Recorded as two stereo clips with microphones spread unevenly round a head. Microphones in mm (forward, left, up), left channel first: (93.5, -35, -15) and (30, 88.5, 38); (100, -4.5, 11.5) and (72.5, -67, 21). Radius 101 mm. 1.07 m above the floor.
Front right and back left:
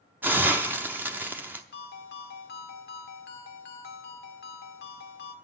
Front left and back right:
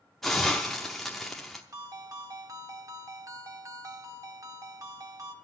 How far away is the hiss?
About 0.7 m.